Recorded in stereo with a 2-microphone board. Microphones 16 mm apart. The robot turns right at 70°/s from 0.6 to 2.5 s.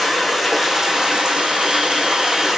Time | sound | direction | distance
0.0 | running water | 165° right | 3 m